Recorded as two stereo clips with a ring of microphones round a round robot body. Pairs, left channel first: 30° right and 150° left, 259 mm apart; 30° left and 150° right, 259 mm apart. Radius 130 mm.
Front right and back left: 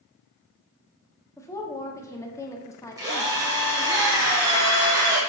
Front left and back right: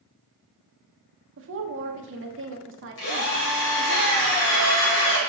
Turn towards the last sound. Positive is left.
turn(degrees=75)